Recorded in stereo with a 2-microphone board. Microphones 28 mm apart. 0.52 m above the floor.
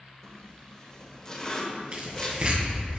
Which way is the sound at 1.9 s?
45° right (ahead or behind).